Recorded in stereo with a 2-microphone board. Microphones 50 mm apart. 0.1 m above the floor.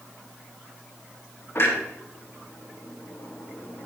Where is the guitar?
I don't hear a guitar.